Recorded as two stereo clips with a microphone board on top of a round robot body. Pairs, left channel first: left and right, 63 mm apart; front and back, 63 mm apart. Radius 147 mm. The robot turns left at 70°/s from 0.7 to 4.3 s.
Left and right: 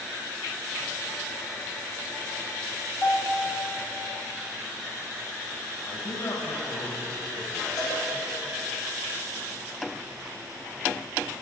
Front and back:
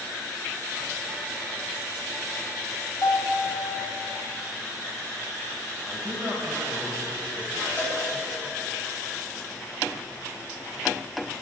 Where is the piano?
30° left, 2.5 m; by 3.9 s 35° right, 2.5 m.